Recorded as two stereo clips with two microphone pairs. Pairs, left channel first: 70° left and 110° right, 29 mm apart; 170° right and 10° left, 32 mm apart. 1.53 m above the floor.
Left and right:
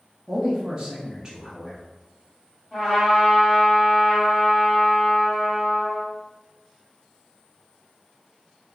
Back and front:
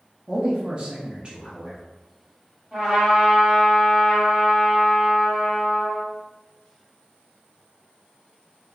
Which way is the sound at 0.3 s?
45° right.